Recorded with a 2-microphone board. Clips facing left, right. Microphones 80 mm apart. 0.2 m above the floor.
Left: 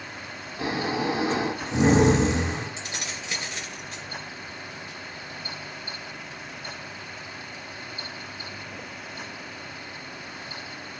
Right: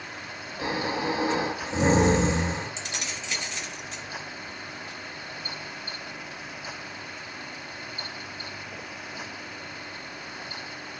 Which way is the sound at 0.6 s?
65° left (ahead or behind).